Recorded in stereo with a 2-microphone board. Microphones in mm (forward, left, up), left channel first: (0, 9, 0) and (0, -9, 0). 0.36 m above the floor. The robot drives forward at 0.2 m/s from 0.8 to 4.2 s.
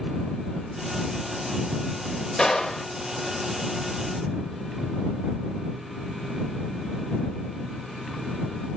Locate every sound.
2.4 s a gunshot: 35° left (ahead or behind), 0.9 m